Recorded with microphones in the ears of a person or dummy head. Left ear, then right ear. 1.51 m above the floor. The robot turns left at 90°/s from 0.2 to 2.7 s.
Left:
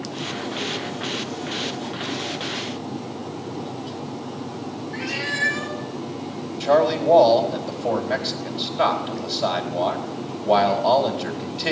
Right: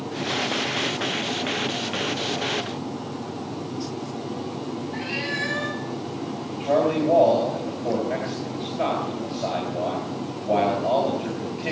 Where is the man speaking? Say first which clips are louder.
Left 3 dB; 50° left (ahead or behind), 3.5 m.